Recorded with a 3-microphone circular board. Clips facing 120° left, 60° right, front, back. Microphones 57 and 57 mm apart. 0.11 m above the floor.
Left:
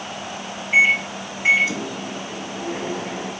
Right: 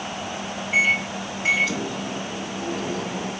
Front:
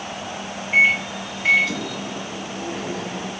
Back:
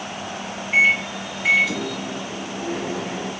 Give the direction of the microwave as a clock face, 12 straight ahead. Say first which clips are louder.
Left 4 dB, even; 8 o'clock.